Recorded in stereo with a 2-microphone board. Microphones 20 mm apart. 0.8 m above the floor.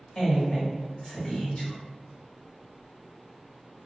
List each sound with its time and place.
0.1 s a woman speaking: 25° left (ahead or behind), 1.4 m